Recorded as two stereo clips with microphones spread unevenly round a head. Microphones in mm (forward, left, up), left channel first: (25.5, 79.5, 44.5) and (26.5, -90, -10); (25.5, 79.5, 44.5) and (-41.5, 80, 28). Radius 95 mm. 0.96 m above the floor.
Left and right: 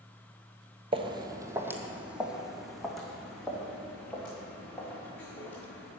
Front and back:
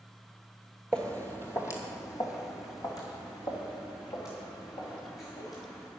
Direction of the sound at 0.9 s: 30° right.